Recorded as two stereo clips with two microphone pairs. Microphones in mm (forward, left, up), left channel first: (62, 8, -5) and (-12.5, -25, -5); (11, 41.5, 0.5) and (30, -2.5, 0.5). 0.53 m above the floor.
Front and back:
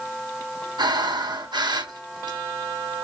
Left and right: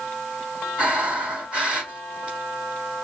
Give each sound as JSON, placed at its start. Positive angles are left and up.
{"t": 0.8, "sound": "breathing", "azimuth_deg": -135, "distance_m": 3.5}